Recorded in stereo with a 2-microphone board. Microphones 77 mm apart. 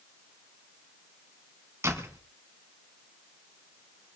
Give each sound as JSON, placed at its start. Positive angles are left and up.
{"t": 1.8, "sound": "a door slam", "side_deg": -35, "distance_m": 3.0}